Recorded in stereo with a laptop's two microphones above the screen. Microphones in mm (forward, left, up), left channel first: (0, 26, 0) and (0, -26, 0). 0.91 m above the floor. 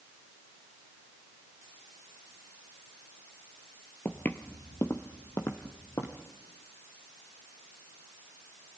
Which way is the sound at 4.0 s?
35° left (ahead or behind).